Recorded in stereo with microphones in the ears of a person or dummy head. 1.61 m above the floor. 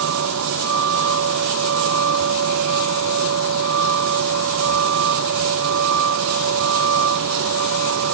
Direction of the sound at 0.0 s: 65° right (ahead or behind).